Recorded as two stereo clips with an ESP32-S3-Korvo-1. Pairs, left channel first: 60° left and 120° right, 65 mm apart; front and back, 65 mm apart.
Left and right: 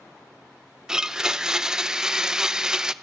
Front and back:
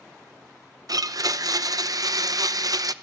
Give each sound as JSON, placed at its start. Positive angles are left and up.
{"t": 0.9, "sound": "a blender", "azimuth_deg": 160, "distance_m": 0.5}